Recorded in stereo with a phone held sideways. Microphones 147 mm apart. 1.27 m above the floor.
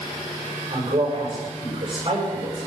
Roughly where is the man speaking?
Right.